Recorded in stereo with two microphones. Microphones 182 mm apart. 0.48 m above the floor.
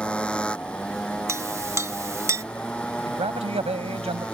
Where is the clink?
15° right (ahead or behind).